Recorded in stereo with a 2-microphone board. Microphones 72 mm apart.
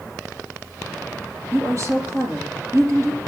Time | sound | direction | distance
1.5 | a woman speaking | 45° right (ahead or behind) | 4.5 m